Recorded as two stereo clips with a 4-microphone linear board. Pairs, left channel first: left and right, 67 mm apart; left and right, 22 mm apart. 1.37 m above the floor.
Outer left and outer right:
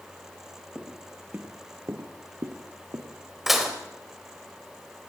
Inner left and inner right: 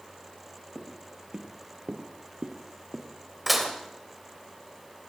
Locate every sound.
0.8 s footsteps: 10° right (ahead or behind), 2 m; by 3.1 s 60° right (ahead or behind), 3 m
3.5 s dishes clattering: 5° right (ahead or behind), 3.5 m